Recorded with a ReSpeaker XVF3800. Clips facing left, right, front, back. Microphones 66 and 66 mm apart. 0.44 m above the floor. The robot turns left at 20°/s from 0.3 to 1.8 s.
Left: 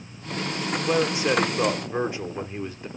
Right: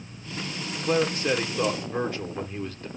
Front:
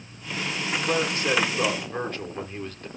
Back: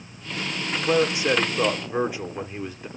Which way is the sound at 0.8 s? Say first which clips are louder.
Left 1 dB, back 5 dB; 140° left.